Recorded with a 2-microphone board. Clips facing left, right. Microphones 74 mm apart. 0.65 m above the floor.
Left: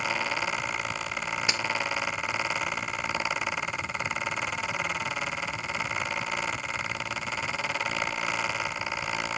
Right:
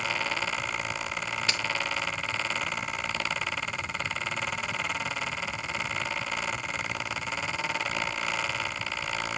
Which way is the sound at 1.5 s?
20° left (ahead or behind).